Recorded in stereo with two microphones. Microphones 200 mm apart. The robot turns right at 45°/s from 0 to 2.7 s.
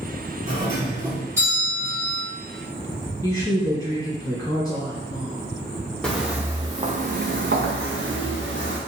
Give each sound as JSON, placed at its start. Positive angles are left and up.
{"t": 0.5, "sound": "a doorbell", "side_deg": -25, "distance_m": 1.6}
{"t": 3.2, "sound": "a woman speaking", "side_deg": 20, "distance_m": 1.1}
{"t": 6.0, "sound": "footsteps", "side_deg": 5, "distance_m": 0.7}